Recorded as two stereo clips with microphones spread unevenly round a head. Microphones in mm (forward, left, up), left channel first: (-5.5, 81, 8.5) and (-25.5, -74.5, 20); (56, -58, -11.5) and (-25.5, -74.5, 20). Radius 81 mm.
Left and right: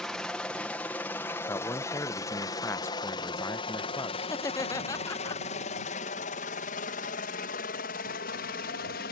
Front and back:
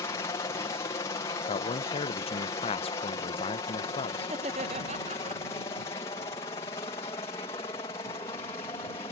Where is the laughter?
150° left.